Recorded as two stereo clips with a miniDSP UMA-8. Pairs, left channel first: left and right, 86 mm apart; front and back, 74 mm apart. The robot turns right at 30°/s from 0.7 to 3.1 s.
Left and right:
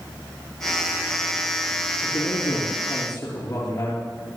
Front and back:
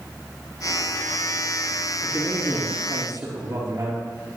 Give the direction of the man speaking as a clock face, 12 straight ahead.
9 o'clock.